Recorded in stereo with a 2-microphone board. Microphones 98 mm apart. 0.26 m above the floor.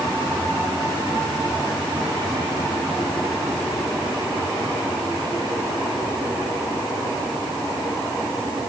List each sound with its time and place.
Only background noise.